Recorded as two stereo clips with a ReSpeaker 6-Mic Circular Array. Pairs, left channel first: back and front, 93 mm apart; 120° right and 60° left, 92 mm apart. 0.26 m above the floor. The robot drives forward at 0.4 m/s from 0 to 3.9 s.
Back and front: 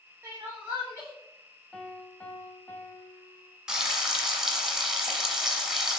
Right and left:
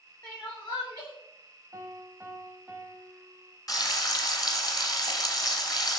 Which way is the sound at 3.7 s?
80° right.